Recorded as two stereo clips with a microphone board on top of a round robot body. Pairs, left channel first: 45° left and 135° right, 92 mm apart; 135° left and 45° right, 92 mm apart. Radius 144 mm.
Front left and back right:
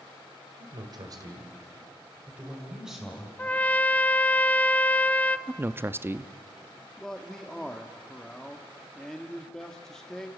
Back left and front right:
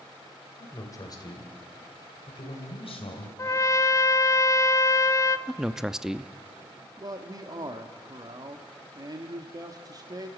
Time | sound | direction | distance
0.6 | a man speaking | 165° right | 3 m
3.4 | a trumpet | 110° left | 0.8 m
5.5 | a man speaking | 120° right | 0.8 m
7.0 | a man speaking | 40° right | 1.5 m